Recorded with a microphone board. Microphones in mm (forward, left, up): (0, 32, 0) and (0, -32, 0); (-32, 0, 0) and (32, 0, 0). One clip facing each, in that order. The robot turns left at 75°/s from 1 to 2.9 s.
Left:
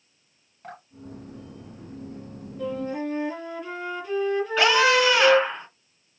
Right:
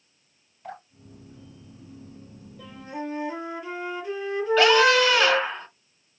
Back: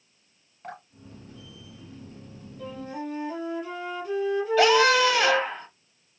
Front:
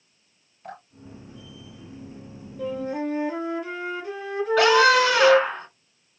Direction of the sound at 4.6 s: 10° left.